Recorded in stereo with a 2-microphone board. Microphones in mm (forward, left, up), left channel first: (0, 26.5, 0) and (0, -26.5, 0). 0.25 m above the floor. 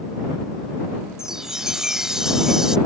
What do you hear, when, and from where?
1.2 s a chime: 10° right (ahead or behind)